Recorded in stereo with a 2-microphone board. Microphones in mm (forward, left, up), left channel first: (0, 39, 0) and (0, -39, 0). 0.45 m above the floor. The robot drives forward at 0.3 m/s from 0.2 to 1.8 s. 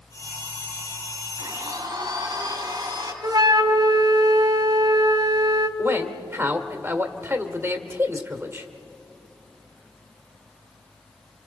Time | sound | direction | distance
1.4 | a blender | 70° right (ahead or behind) | 3 m
3.2 | a flute | 75° right (ahead or behind) | 1.2 m
5.8 | a man speaking | 35° right (ahead or behind) | 1.7 m